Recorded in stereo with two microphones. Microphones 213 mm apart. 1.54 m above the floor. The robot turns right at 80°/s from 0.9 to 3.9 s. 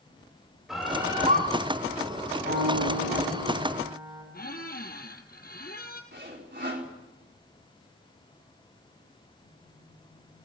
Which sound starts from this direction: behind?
A bird, at 0.7 s.